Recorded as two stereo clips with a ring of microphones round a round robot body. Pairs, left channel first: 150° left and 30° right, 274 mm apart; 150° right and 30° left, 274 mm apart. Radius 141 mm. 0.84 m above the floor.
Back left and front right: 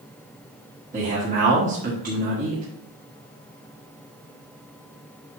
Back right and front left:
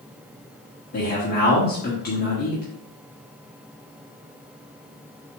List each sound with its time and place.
0.9 s a man speaking: 90° right, 1.7 m